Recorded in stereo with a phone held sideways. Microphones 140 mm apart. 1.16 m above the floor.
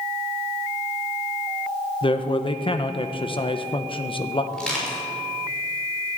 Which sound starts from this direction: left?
A man speaking, at 2.0 s.